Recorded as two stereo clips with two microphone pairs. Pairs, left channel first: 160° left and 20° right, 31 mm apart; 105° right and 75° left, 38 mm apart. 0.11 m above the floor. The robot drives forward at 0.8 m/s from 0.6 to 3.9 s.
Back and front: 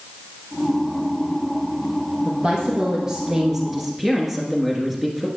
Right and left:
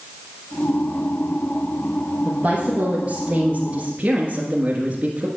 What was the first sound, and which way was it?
A woman speaking, 25° left.